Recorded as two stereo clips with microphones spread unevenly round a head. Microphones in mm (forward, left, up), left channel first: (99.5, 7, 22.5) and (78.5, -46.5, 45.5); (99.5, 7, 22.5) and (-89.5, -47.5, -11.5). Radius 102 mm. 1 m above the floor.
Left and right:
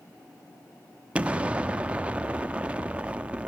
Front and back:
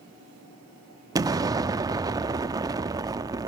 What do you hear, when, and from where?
1.1 s an explosion: 90° right, 0.5 m